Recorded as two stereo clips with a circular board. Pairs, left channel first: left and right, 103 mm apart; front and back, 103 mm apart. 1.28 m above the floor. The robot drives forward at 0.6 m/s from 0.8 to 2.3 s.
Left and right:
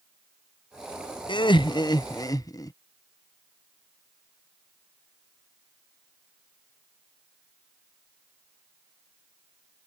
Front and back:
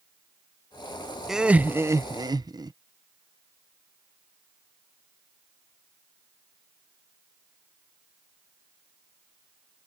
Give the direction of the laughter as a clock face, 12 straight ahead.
9 o'clock.